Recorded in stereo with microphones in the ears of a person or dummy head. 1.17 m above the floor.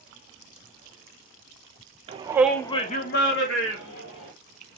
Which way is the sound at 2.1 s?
30° right (ahead or behind).